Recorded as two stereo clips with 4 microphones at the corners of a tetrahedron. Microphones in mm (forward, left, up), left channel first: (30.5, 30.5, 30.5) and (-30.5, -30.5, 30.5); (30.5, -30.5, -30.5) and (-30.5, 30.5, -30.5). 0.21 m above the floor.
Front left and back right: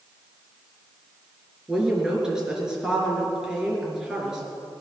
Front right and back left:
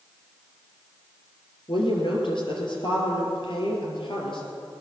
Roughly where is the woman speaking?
Ahead right.